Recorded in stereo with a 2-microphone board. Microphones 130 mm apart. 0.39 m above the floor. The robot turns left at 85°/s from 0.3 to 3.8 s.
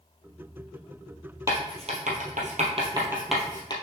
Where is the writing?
20° right (ahead or behind), 2 m; by 3.7 s 35° left (ahead or behind), 2 m.